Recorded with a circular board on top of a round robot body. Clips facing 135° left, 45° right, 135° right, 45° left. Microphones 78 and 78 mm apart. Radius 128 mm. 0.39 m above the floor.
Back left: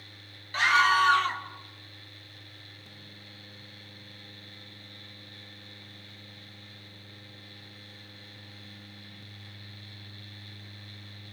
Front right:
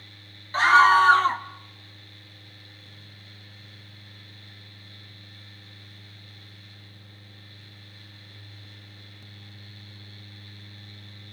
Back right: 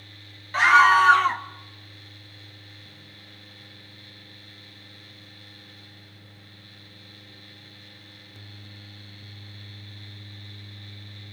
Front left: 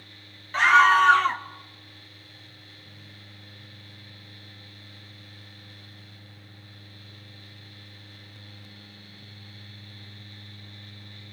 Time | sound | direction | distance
0.5 | a scream | 50° right | 1.2 m